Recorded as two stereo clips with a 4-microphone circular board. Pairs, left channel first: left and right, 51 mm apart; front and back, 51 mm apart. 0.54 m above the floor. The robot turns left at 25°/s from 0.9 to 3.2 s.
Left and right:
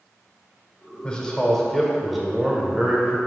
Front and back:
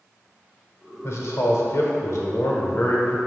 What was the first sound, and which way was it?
A man speaking, 20° left.